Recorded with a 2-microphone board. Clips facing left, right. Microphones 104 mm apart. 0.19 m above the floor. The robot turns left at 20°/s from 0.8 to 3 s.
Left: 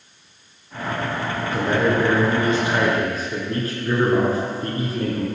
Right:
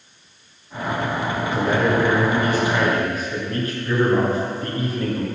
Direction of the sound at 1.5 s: 10° left (ahead or behind).